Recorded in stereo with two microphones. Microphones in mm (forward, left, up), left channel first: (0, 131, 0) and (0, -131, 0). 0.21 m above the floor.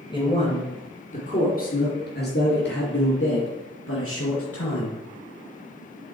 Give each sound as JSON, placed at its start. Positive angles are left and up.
{"t": 0.1, "sound": "a man speaking", "side_deg": 15, "distance_m": 3.0}